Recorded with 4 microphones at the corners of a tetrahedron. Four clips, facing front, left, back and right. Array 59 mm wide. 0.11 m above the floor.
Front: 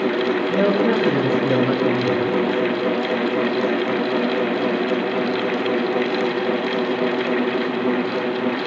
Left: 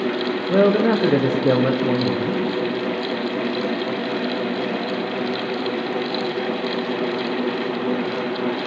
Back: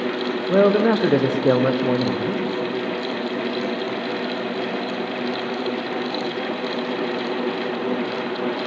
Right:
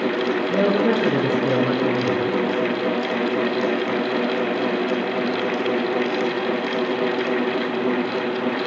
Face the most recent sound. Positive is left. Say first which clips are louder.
# left 4 dB, back 5 dB
turn(degrees=155)